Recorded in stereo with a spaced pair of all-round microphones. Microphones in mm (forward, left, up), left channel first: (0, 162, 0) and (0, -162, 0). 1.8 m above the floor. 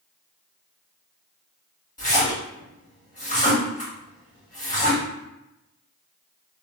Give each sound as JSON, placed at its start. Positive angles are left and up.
{"t": 2.0, "sound": "a splash", "side_deg": 25, "distance_m": 1.4}